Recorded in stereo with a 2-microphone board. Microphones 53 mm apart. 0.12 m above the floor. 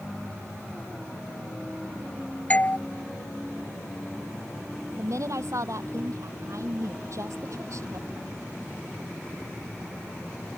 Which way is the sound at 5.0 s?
70° right (ahead or behind).